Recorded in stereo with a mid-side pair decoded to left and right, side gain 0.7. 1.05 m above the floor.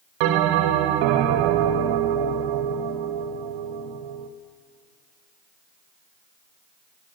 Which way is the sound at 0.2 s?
70° right.